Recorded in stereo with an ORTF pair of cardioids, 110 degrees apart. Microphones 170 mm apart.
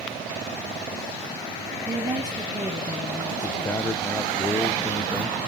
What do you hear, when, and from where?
1.9 s a woman speaking: 20° right, 1.7 m
3.4 s a man speaking: 15° left, 0.8 m